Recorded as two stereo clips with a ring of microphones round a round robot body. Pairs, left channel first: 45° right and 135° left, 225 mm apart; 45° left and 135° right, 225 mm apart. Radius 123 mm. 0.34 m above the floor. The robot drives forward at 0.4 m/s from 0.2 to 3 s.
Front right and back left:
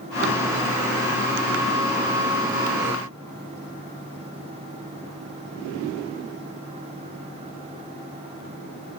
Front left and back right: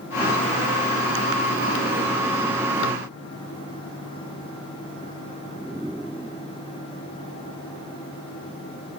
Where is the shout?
I don't hear a shout.